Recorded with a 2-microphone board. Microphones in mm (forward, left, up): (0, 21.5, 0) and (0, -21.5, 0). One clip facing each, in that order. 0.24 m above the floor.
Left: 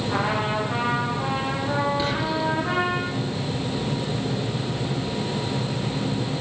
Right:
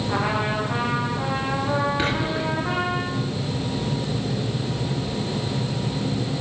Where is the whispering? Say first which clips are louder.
Even; 45° right (ahead or behind), 5 m.